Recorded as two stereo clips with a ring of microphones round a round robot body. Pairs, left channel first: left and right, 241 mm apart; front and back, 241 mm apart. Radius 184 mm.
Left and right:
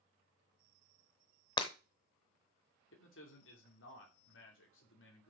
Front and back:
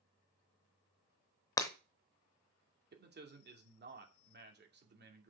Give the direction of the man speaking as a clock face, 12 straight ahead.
7 o'clock.